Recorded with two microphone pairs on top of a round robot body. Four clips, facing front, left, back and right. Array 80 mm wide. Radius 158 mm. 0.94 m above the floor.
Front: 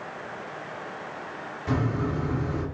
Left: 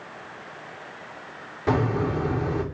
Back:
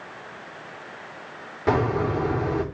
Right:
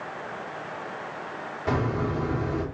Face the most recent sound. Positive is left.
turn(degrees=160)